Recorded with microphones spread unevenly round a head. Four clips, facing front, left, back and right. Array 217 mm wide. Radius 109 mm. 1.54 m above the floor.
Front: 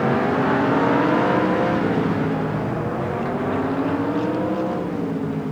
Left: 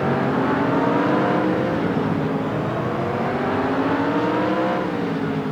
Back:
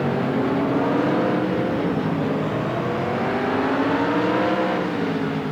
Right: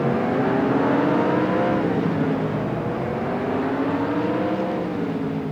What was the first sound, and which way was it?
Only background noise.